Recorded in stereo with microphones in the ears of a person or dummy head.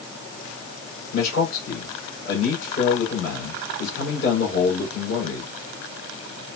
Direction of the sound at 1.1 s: 75° left (ahead or behind).